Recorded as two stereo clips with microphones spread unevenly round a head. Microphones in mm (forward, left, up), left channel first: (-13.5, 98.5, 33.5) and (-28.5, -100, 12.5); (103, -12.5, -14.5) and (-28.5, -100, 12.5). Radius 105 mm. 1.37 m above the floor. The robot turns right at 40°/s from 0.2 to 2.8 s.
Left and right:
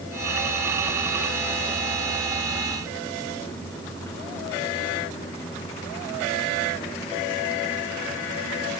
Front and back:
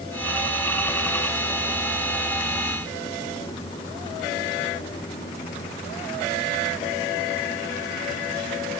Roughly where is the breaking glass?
I don't hear breaking glass.